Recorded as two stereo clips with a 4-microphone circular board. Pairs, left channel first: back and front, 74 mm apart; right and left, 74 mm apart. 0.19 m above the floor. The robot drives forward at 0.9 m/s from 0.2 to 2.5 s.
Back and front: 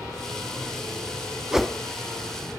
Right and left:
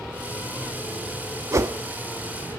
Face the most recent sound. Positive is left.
turn(degrees=155)